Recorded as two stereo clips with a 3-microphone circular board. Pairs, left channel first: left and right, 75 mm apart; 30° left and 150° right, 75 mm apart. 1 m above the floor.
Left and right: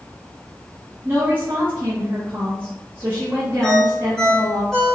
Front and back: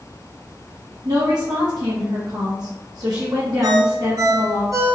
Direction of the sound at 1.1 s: 155° right.